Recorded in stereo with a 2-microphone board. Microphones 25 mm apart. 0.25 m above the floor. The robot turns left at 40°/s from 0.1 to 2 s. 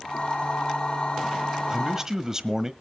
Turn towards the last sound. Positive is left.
turn(degrees=-20)  # may be behind; listen again after turning